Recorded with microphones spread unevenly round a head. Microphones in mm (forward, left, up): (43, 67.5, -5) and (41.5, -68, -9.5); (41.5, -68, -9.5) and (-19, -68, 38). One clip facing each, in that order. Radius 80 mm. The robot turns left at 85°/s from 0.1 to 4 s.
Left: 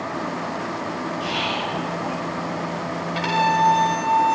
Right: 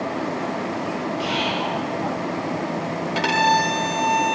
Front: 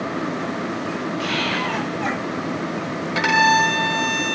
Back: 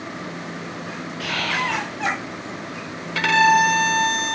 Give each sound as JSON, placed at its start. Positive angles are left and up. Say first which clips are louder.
{"t": 1.2, "sound": "whispering", "louder": "right 2 dB, back 2 dB", "azimuth_deg": -95, "distance_m": 2.0}
{"t": 3.1, "sound": "a violin", "louder": "even, back 1 dB", "azimuth_deg": -50, "distance_m": 0.8}